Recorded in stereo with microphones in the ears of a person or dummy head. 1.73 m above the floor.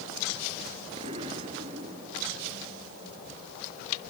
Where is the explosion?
30° right (ahead or behind).